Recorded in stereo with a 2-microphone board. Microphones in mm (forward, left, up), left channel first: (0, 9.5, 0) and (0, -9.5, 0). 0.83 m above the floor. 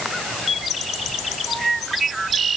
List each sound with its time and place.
Only background noise.